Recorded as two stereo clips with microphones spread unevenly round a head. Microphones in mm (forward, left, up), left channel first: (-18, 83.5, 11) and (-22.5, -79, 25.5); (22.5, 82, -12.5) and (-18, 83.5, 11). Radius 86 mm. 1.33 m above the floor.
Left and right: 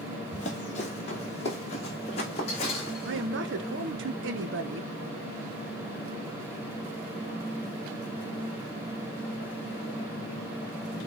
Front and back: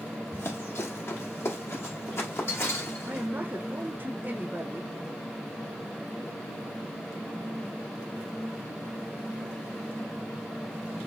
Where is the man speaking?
100° right, 0.9 m.